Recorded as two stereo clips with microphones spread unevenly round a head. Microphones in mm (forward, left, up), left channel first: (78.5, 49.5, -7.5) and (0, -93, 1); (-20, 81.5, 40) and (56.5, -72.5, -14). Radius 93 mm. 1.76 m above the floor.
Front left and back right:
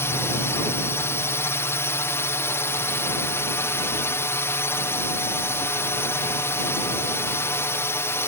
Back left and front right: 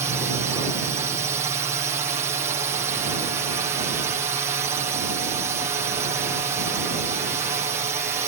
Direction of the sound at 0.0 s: 10° right.